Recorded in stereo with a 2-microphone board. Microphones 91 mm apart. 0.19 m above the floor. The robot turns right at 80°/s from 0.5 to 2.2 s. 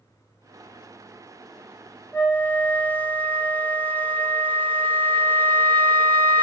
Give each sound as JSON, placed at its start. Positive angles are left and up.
{"t": 2.1, "sound": "a flute", "side_deg": 20, "distance_m": 0.7}